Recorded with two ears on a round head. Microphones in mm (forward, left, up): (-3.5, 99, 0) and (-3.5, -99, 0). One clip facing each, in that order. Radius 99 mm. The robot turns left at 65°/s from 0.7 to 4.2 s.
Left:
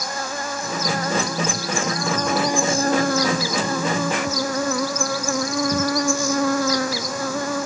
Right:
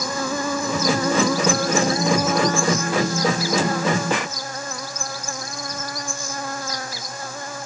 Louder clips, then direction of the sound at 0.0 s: Right 5 dB; 75° right.